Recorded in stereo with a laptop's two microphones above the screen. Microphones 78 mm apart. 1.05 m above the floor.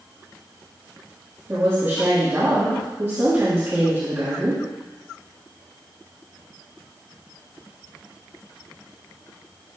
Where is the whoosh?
I don't hear a whoosh.